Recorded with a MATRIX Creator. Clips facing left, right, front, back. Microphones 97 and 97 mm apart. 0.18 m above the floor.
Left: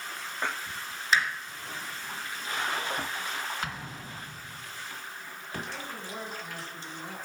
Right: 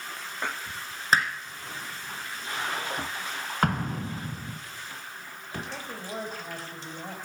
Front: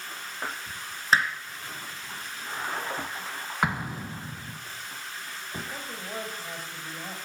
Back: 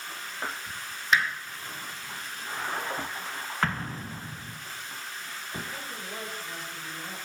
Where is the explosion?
75° right, 1.0 m.